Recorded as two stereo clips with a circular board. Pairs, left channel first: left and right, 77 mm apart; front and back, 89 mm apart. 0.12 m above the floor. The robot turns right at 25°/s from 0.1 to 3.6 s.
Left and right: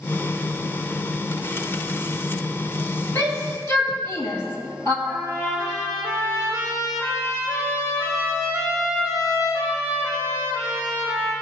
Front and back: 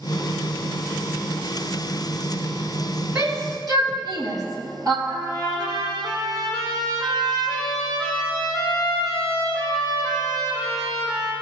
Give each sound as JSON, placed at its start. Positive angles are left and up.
{"t": 3.1, "sound": "a shout", "azimuth_deg": 130, "distance_m": 2.5}
{"t": 5.0, "sound": "a trumpet", "azimuth_deg": 140, "distance_m": 4.5}